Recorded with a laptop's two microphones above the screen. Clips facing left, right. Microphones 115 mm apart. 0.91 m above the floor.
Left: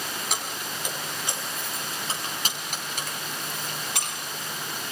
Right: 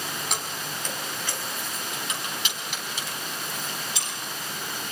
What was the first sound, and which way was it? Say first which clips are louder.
Keys jangling: even; centre (ahead or behind).